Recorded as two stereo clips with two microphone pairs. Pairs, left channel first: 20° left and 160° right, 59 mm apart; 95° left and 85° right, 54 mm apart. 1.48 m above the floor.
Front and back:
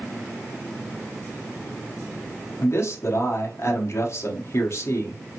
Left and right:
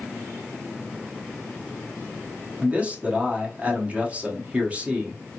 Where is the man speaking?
20° right, 1.0 m.